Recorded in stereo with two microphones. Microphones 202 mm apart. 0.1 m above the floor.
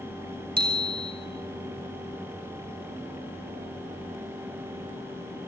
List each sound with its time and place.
0.6 s a bicycle bell: 55° right (ahead or behind), 2.5 m